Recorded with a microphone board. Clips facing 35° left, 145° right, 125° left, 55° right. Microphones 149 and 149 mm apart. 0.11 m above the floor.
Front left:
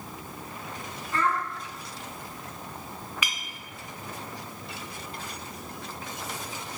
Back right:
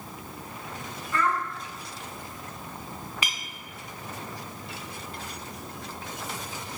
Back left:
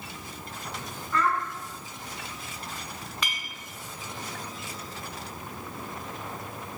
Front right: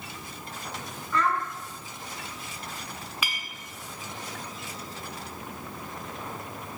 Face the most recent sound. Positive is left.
turn(degrees=-130)